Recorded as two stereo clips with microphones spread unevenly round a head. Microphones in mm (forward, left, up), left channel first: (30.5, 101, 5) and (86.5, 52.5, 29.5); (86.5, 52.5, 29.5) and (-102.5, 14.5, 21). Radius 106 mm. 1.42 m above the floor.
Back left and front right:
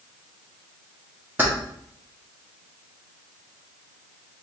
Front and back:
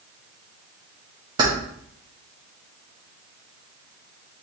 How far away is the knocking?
No knocking in this recording.